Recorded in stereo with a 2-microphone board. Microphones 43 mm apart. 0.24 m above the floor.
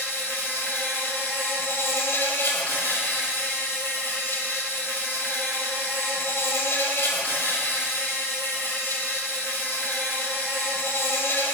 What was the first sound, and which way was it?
An insect, 70° left (ahead or behind).